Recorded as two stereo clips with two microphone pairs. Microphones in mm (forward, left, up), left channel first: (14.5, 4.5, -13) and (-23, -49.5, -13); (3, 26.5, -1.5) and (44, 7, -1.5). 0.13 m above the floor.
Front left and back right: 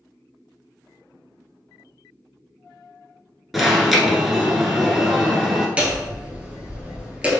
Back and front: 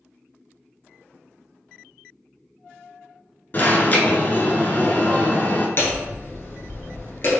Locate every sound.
3.5 s an alarm: 150° left, 0.9 m
5.8 s hammering: 165° left, 1.1 m